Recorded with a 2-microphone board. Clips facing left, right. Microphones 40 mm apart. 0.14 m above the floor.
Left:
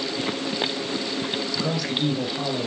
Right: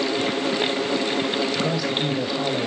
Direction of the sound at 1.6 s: 5° right (ahead or behind).